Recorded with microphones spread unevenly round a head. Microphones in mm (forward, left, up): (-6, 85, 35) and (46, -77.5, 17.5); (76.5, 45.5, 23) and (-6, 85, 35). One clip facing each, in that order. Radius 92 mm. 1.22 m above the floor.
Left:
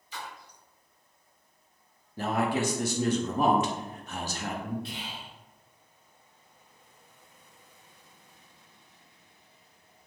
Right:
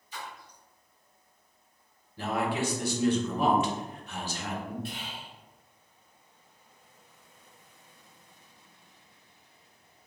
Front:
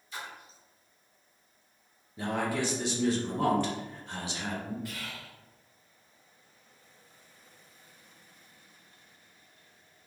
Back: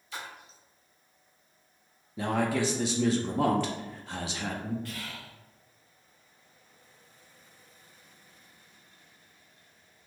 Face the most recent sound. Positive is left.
turn(degrees=-105)